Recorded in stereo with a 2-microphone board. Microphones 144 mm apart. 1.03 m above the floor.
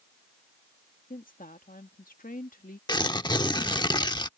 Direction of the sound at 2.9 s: 30° left (ahead or behind).